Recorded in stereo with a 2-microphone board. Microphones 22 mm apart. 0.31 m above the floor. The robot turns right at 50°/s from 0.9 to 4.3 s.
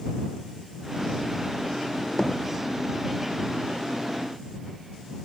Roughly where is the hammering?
Left.